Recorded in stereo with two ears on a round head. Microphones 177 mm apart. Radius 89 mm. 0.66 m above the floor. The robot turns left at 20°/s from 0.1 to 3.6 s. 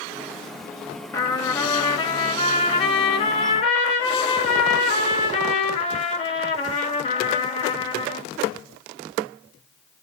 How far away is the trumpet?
About 1.2 m.